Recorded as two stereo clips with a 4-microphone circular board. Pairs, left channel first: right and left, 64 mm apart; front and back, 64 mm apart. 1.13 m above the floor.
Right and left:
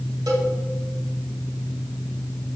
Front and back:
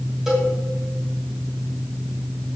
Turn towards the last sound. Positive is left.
turn(degrees=95)